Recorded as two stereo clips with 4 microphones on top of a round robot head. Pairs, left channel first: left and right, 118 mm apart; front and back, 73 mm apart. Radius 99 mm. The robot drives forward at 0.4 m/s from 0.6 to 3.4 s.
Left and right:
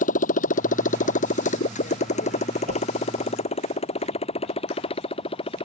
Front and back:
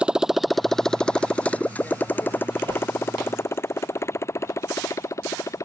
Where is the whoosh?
130° right.